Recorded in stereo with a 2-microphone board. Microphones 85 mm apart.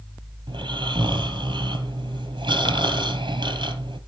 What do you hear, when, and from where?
0.5 s snoring: 75° right (ahead or behind), 2 m